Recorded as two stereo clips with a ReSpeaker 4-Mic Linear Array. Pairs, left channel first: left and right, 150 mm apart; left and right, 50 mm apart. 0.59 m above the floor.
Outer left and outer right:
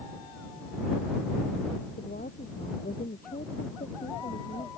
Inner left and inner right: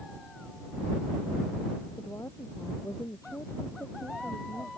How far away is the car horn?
No car horn in this recording.